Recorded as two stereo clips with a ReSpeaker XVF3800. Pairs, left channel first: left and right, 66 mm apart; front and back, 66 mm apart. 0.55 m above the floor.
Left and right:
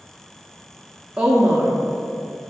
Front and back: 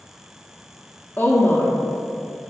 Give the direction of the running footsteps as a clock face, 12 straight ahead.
No running footsteps in this recording.